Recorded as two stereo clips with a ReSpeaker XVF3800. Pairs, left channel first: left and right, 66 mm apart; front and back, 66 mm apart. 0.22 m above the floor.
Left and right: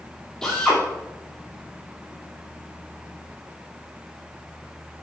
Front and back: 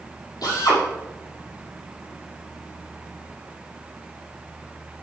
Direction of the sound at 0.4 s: 10° left.